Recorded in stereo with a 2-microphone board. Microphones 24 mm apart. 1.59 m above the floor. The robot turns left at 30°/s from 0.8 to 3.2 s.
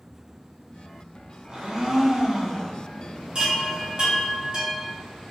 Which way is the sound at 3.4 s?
35° right (ahead or behind).